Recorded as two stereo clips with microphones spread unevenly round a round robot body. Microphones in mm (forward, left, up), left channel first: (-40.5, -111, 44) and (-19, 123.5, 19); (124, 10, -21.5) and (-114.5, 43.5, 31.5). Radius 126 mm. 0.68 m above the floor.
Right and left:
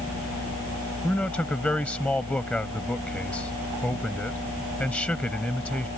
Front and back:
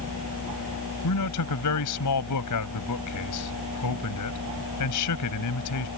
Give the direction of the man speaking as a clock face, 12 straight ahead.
12 o'clock.